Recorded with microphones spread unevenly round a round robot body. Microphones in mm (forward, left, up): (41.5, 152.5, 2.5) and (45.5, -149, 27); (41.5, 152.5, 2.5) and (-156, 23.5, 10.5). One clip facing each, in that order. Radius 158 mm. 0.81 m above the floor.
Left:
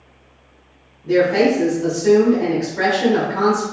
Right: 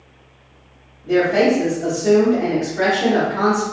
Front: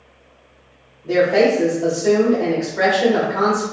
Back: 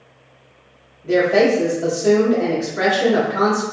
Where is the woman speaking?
150° left, 1.1 m.